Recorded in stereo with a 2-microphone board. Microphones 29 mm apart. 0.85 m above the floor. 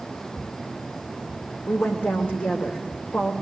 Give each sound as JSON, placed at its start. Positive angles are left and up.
{"t": 1.7, "sound": "a woman speaking", "side_deg": 75, "distance_m": 3.5}